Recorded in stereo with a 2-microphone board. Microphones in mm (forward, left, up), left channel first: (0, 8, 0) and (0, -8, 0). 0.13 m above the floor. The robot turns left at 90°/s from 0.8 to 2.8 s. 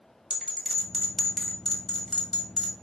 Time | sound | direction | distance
0.3 | a bell | 25° right (ahead or behind) | 1.2 m